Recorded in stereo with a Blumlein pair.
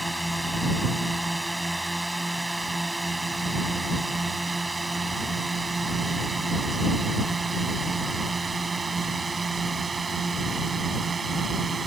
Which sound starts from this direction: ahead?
A drone, at 0.0 s.